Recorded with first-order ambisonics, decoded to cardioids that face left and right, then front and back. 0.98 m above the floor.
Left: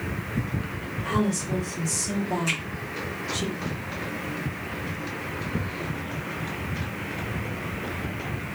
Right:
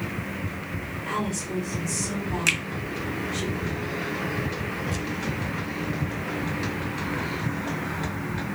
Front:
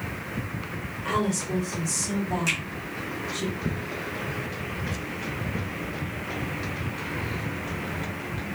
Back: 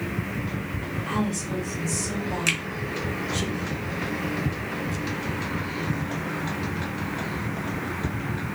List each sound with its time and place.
1.1 s a woman speaking: 25° left, 1.4 m; by 3.5 s 95° left, 1.2 m
2.5 s a finger snap: 115° right, 0.7 m